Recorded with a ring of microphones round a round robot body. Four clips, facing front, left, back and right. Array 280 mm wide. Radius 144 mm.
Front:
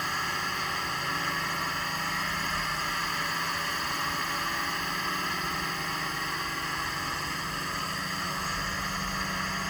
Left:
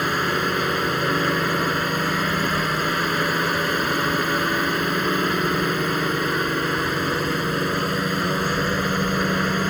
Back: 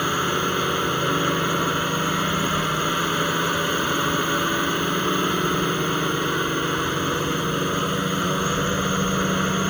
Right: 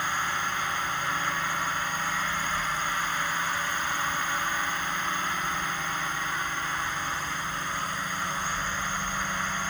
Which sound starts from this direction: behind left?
A drone, at 0.0 s.